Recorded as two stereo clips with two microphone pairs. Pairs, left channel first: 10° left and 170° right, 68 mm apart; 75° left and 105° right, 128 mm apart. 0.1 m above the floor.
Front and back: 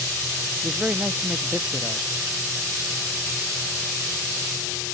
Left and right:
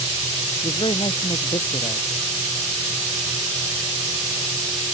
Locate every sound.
0.6 s a man speaking: 120° left